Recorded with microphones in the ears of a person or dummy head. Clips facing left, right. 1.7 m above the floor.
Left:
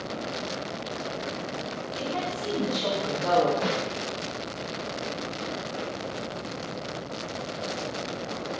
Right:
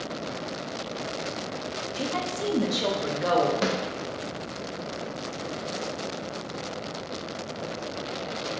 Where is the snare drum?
70° right (ahead or behind), 0.7 m.